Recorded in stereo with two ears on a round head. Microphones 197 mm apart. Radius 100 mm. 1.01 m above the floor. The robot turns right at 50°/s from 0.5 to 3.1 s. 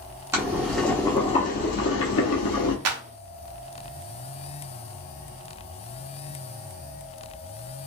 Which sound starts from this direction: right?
A clap, at 2.9 s.